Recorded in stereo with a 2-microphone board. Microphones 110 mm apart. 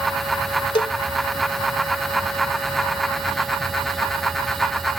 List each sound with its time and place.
0.8 s a cowbell: 55° left (ahead or behind)